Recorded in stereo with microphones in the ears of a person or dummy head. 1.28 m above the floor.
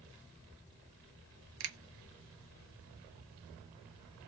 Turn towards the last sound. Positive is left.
turn(degrees=-65)  # may be behind; listen again after turning